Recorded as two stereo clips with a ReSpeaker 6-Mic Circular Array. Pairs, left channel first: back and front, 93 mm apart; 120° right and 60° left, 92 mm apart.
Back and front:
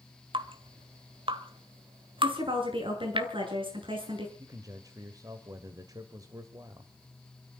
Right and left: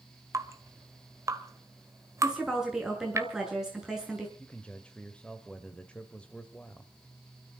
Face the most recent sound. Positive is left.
turn(degrees=-45)